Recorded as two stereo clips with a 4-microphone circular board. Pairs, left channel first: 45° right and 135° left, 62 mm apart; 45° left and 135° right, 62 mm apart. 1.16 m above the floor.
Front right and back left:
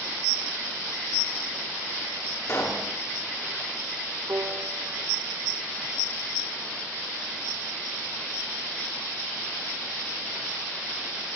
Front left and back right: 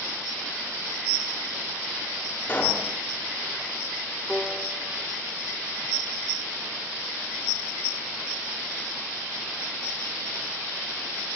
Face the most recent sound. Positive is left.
turn(degrees=130)